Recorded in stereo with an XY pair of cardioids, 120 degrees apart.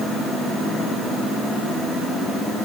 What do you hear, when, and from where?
Only background noise.